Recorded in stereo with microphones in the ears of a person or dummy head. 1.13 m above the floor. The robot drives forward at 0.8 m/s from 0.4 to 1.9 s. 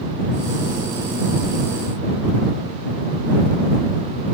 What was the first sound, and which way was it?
Only background noise.